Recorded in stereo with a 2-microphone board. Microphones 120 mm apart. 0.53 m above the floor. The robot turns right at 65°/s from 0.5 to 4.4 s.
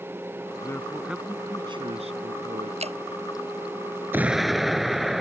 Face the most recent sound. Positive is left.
turn(degrees=0)  # may be behind; listen again after turning